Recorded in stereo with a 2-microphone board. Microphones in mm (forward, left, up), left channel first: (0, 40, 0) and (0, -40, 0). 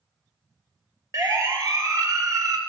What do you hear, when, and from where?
1.1 s a siren: 45° right (ahead or behind), 3.5 m